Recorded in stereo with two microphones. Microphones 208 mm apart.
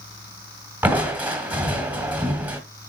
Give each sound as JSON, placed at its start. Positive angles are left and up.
{"t": 0.8, "sound": "crushing", "side_deg": -10, "distance_m": 1.6}